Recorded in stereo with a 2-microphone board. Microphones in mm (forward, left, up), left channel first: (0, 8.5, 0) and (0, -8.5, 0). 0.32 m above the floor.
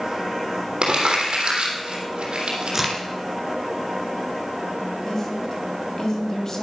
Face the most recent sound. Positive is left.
turn(degrees=30)  # may be behind; listen again after turning